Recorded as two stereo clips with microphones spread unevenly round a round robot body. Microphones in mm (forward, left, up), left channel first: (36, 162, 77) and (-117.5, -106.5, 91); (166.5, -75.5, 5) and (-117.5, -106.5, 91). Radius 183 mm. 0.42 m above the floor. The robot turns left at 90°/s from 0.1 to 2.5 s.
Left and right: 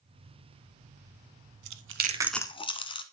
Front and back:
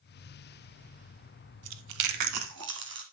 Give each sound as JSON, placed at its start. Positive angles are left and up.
{"t": 1.6, "sound": "chewing", "azimuth_deg": -145, "distance_m": 0.7}